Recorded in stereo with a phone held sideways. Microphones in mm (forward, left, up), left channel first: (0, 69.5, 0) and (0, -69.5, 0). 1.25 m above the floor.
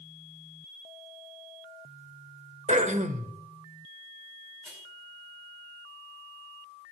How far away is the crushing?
About 10 m.